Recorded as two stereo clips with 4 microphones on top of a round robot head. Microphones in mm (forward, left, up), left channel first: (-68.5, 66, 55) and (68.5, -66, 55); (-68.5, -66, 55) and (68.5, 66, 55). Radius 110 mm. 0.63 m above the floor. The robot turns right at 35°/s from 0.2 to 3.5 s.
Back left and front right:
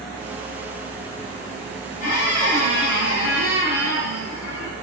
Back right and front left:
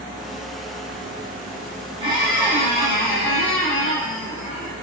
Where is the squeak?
105° left, 1.1 m; by 4.7 s 155° left, 1.1 m.